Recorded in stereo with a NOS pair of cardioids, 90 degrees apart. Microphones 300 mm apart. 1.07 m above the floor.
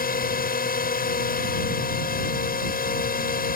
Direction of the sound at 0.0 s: 30° left.